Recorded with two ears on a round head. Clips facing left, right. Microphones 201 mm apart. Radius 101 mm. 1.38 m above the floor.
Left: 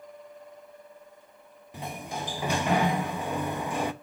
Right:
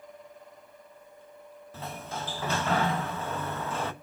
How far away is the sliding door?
About 0.7 m.